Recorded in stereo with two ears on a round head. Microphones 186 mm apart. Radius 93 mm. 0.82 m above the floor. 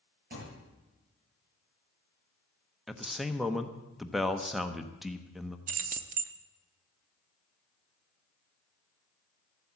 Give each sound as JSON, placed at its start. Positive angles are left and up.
{"t": 0.3, "sound": "a thud", "side_deg": -45, "distance_m": 8.5}
{"t": 2.9, "sound": "a man speaking", "side_deg": 0, "distance_m": 0.9}
{"t": 5.7, "sound": "keys jangling", "side_deg": -40, "distance_m": 0.7}